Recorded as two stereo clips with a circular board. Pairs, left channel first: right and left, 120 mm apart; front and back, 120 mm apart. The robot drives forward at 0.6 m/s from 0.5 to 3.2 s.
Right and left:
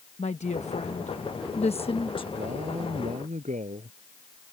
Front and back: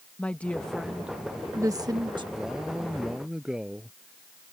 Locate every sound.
0.2 s a woman speaking: 80° right; by 2.2 s 135° right
2.4 s a man speaking: 95° left